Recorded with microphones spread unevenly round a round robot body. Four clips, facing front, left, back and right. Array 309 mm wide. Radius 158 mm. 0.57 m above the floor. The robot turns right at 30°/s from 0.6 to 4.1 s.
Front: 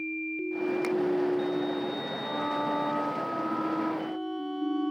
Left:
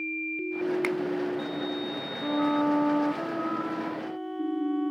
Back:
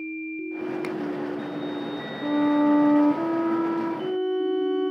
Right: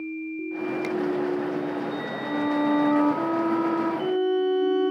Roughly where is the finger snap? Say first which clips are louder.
Even, front 2 dB; left.